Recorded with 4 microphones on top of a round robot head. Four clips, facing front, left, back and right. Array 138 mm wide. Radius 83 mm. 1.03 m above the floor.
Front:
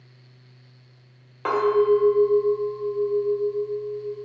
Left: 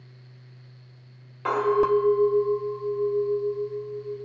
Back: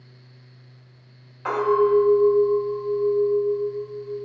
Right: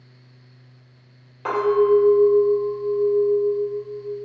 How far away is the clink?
About 1.5 m.